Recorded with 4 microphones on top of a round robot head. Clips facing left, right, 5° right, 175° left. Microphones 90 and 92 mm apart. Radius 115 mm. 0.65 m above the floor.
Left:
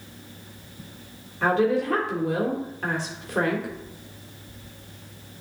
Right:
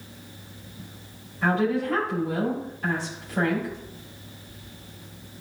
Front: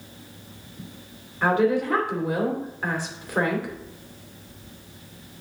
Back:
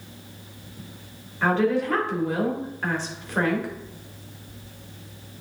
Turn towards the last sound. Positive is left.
turn(degrees=75)